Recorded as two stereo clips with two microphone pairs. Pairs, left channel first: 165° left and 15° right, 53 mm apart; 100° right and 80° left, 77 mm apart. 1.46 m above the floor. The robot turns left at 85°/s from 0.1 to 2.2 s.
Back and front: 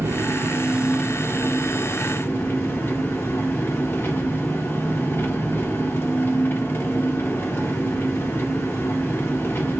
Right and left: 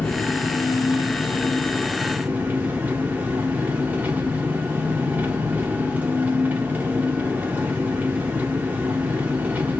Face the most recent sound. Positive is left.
turn(degrees=140)